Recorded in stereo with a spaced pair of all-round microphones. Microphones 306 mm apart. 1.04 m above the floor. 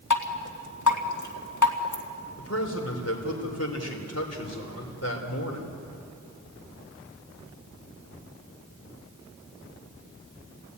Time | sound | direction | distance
0.1 | dripping | 70° left (ahead or behind) | 2 m
2.4 | a man speaking | 50° left (ahead or behind) | 4 m